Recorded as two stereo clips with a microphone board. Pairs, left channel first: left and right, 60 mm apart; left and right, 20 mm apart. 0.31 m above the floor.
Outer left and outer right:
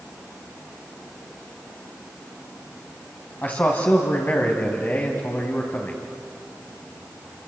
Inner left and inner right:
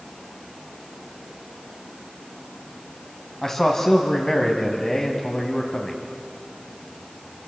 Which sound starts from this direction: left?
A man speaking, at 3.4 s.